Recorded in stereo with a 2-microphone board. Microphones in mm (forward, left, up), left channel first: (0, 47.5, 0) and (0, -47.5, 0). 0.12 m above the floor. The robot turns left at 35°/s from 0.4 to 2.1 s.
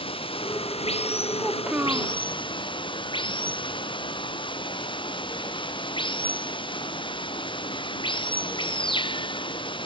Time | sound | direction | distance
0.0 | running water | 115° left | ?
1.4 | a child speaking | 5° right (ahead or behind) | ?